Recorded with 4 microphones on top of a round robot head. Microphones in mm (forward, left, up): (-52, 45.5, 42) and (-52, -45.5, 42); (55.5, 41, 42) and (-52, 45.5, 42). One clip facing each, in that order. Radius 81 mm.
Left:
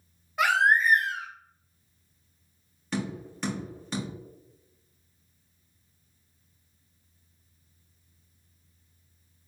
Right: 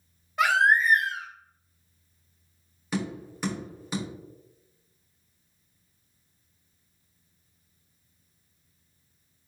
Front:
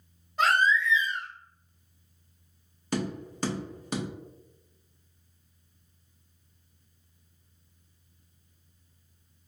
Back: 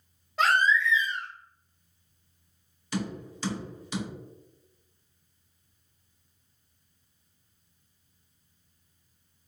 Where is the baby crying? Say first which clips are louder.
Right 1 dB, even; straight behind, 1.6 m.